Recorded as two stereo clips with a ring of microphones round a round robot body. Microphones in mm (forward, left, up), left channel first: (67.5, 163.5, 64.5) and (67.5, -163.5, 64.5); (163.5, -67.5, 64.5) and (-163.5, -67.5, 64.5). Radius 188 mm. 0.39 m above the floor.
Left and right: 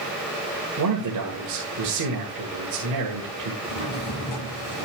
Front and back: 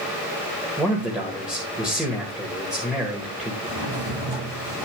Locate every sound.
0.8 s a man speaking: 95° right, 1.8 m
3.6 s a drawer: 125° left, 6 m